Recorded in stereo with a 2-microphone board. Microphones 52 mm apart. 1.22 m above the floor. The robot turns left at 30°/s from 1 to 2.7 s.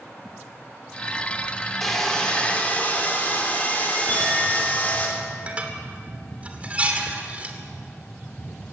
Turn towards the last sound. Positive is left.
turn(degrees=-25)  # may be behind; listen again after turning